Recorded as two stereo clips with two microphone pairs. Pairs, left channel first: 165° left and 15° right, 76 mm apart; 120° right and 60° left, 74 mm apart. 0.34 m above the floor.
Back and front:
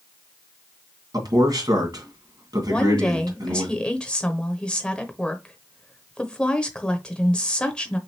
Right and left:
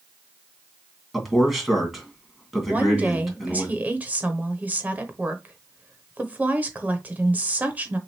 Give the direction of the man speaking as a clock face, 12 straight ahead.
1 o'clock.